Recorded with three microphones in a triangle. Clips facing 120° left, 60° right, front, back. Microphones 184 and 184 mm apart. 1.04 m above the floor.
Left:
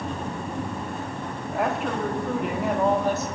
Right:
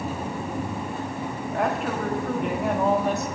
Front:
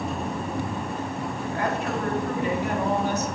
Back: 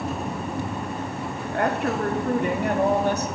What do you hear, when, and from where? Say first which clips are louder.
1.5 s a woman speaking: even, back 4 dB; 150° right, 1.9 m